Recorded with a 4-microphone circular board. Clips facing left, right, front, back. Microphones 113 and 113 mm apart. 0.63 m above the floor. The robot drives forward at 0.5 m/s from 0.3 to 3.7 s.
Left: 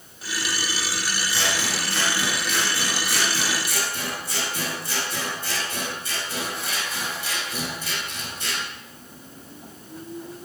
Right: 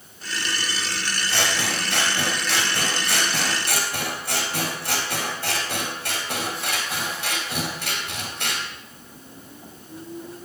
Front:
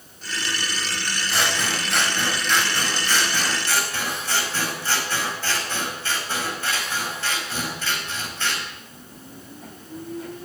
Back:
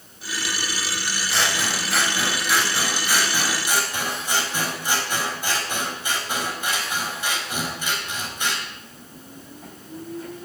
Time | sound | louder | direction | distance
1.3 | scissors | right 3 dB, even | 85° right | 4 m